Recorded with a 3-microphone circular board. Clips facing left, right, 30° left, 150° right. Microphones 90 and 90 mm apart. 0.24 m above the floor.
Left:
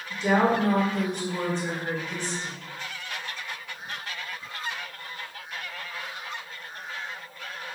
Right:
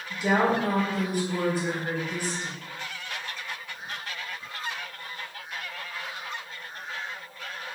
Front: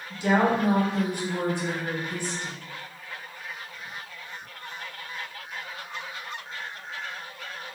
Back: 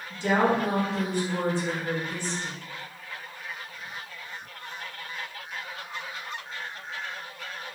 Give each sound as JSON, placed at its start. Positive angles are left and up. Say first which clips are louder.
{"t": 0.1, "sound": "a woman speaking", "louder": "left 1 dB, front 1 dB", "azimuth_deg": -20, "distance_m": 1.0}